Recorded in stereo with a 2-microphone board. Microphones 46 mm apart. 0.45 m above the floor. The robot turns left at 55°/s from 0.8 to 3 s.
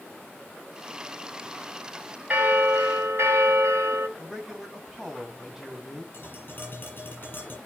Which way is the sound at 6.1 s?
50° left (ahead or behind).